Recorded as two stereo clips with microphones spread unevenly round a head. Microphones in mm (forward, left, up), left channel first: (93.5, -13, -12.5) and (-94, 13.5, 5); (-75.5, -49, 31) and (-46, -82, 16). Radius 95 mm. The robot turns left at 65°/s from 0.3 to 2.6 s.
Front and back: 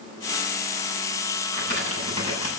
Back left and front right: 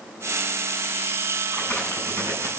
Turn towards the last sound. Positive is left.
turn(degrees=-30)